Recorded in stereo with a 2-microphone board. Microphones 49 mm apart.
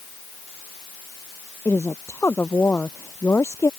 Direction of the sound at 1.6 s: 55° left (ahead or behind).